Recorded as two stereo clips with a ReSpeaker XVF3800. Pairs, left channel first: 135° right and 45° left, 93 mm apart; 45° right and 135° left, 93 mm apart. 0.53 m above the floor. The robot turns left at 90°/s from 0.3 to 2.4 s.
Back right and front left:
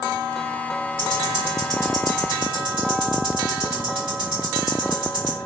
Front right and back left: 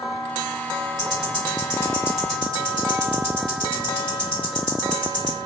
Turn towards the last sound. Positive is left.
turn(degrees=30)